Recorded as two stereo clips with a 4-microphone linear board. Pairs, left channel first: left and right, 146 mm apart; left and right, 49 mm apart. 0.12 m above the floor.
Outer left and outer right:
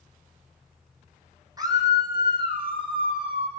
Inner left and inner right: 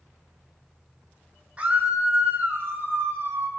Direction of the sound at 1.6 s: 25° right (ahead or behind).